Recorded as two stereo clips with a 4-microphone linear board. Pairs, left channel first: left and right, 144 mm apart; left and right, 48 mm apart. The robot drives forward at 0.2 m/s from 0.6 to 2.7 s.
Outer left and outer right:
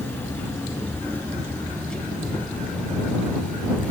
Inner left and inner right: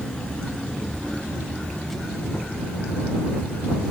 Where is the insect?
15° left (ahead or behind), 1.3 m; by 3.9 s 10° left (ahead or behind), 1.7 m.